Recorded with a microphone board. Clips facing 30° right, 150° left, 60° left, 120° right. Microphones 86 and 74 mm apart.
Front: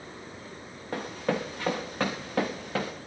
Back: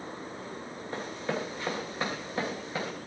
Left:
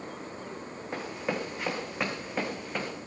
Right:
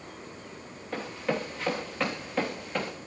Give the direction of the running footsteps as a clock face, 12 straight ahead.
12 o'clock.